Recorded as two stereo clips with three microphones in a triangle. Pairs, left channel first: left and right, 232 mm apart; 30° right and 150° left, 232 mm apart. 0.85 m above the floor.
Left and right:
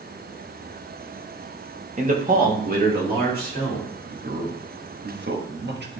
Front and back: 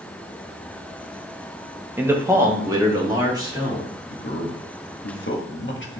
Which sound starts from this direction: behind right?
A man speaking, at 2.0 s.